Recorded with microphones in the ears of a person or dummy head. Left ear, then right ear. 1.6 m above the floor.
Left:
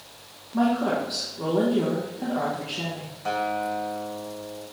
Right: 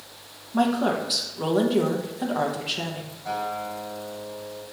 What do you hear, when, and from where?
0.5 s a woman speaking: 35° right (ahead or behind), 1.0 m
3.2 s a guitar: 60° left (ahead or behind), 1.1 m